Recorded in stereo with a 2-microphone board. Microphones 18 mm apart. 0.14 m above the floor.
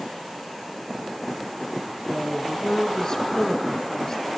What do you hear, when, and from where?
2.1 s a woman speaking: 30° left (ahead or behind), 1.7 m